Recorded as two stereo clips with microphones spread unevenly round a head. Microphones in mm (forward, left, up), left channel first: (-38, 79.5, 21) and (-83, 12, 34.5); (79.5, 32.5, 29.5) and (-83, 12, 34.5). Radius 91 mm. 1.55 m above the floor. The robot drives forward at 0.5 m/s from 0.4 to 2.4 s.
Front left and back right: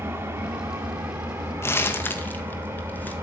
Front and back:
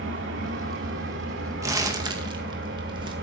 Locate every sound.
0.0 s an engine running: 175° right, 2 m
1.6 s crumpling: 115° left, 1.9 m; by 3.1 s 125° left, 2 m